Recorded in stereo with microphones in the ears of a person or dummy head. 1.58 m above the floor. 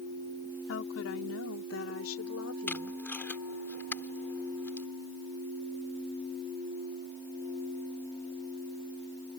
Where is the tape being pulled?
5° left (ahead or behind).